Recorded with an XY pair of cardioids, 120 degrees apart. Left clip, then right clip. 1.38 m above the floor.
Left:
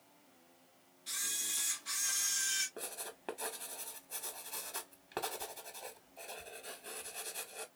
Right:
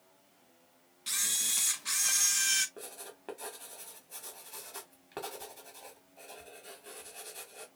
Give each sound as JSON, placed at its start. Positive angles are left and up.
{"t": 1.1, "sound": "a camera shutter", "azimuth_deg": -65, "distance_m": 1.4}
{"t": 2.8, "sound": "writing", "azimuth_deg": 20, "distance_m": 1.7}